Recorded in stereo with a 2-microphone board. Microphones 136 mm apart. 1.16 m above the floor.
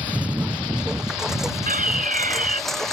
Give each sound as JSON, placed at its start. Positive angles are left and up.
{"t": 0.0, "sound": "a lawn mower", "side_deg": -10}
{"t": 1.7, "sound": "a fire alarm", "side_deg": -75}